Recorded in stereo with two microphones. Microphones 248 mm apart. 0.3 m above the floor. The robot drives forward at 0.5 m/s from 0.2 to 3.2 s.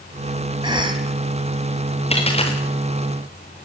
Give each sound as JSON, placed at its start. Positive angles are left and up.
{"t": 0.6, "sound": "a cough", "side_deg": -20, "distance_m": 2.0}
{"t": 2.1, "sound": "a dropped coin", "side_deg": 25, "distance_m": 6.0}